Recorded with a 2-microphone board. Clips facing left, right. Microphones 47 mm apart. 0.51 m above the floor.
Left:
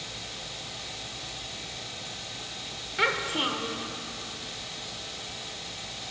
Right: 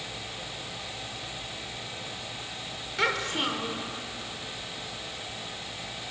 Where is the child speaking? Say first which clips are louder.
Left 1 dB; 5° left (ahead or behind), 0.7 m.